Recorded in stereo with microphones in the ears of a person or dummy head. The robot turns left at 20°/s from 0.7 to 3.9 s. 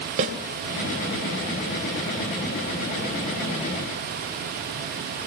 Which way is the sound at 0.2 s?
45° right (ahead or behind).